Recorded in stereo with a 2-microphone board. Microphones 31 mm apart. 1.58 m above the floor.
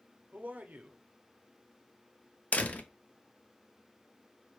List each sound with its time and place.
0.3 s a man speaking: 55° right (ahead or behind), 0.7 m
2.5 s a door slam: 45° left (ahead or behind), 0.5 m